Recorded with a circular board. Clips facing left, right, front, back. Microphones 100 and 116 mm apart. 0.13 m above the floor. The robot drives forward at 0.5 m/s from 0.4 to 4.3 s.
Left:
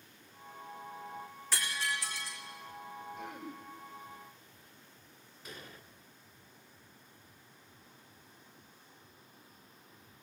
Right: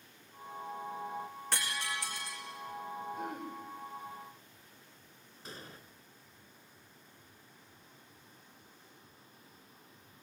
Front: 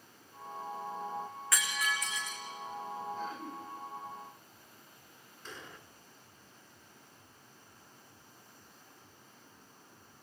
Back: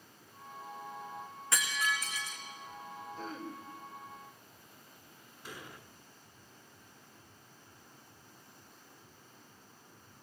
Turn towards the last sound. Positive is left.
turn(degrees=-110)